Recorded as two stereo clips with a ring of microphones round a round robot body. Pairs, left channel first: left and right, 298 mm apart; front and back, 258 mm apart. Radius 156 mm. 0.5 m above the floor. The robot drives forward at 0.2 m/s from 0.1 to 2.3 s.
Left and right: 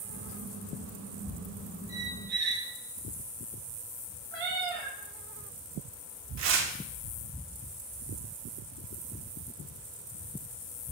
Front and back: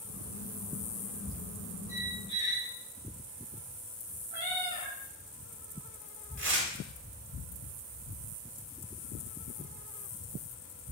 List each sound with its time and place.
1.9 s a squeak: 150° right, 1.7 m
4.3 s a cat meowing: 145° right, 1.0 m
6.4 s tearing paper: 135° right, 0.7 m